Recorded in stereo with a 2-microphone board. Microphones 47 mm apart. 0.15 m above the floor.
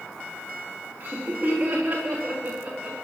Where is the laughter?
35° right (ahead or behind), 8.5 m; by 2.9 s 25° right (ahead or behind), 11 m.